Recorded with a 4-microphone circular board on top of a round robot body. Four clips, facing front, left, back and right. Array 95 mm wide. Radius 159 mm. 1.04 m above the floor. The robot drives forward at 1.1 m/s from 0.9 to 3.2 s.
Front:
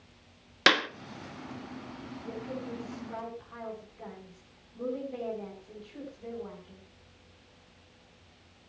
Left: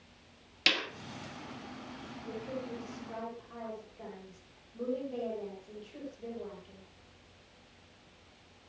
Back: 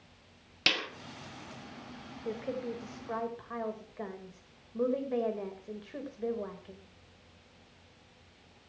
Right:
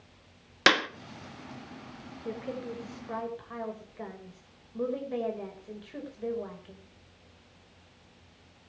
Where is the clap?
50° right, 1.1 m.